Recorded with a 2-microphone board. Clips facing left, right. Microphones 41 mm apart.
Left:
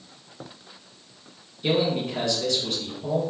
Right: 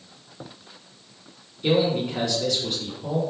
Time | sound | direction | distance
1.6 | a man speaking | 5° right (ahead or behind) | 1.4 m